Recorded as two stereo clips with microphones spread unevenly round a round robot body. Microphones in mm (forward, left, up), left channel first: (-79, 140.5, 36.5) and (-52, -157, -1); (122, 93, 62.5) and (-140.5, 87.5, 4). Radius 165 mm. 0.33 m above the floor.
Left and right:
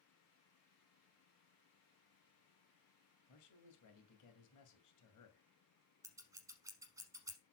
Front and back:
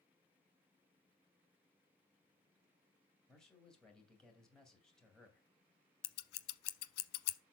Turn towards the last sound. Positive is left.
turn(degrees=-5)